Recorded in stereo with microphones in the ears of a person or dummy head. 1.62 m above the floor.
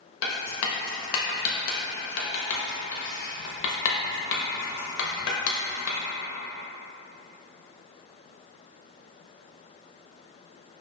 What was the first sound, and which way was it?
Writing, 80° left.